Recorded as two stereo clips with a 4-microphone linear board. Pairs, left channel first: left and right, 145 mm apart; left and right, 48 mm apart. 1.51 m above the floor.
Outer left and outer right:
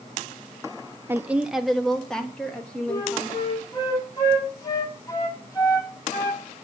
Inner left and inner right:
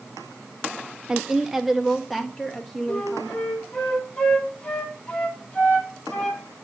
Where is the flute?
25° left (ahead or behind), 2 m.